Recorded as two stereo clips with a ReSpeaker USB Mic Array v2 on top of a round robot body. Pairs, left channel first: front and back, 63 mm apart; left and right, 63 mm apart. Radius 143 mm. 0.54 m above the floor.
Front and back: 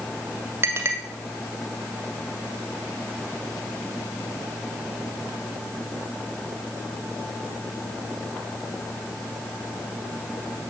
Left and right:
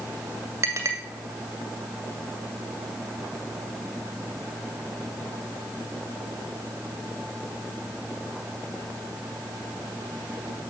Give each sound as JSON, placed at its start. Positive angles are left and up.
{"t": 0.6, "sound": "a clink", "azimuth_deg": -130, "distance_m": 2.5}